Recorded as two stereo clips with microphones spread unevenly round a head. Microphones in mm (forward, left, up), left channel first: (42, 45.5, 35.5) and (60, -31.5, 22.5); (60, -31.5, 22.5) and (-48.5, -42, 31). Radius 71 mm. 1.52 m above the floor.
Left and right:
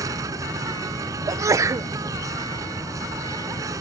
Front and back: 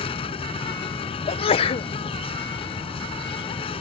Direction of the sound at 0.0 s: 30° right.